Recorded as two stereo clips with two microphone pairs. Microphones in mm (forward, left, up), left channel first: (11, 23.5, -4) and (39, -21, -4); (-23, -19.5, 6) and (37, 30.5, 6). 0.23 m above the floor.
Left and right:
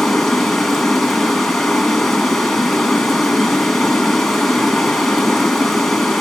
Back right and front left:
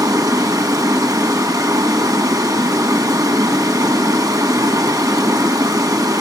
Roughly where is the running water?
Ahead left.